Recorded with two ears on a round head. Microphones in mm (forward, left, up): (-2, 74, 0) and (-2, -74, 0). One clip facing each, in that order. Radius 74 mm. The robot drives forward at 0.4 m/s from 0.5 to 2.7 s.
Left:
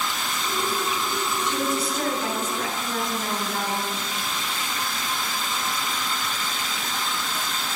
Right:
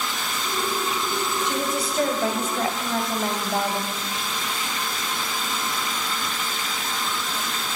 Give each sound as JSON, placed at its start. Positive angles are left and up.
{"t": 1.4, "sound": "a woman speaking", "side_deg": -55, "distance_m": 2.0}